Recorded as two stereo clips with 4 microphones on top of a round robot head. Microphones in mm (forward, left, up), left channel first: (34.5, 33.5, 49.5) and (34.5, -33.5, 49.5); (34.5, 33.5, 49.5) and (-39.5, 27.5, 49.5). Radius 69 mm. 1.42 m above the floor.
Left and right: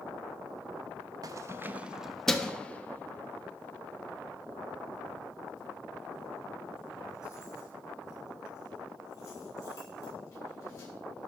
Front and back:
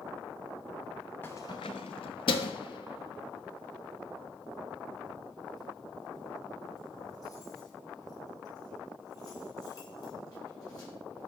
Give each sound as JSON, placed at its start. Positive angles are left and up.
{"t": 1.2, "sound": "keys jangling", "azimuth_deg": -70, "distance_m": 1.0}